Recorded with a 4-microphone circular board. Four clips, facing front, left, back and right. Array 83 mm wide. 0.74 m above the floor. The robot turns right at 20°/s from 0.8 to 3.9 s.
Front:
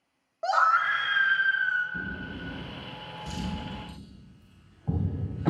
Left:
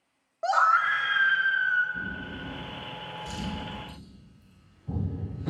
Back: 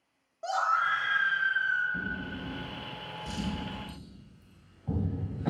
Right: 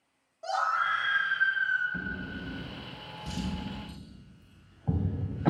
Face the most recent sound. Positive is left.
turn(degrees=-75)